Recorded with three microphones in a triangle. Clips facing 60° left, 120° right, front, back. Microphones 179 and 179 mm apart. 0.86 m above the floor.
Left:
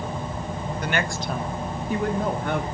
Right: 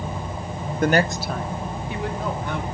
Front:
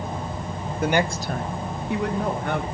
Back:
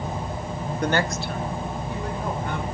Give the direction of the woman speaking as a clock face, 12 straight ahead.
3 o'clock.